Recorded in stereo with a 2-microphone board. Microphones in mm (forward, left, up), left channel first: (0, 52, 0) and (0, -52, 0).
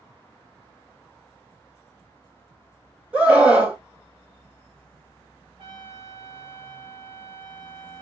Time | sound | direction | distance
3.1 | a scream | 10° right (ahead or behind) | 1.3 m
5.6 | a trumpet | 50° right (ahead or behind) | 0.9 m